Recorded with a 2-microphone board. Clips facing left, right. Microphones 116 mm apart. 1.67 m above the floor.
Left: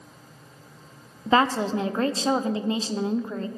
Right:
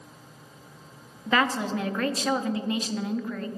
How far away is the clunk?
No clunk in this recording.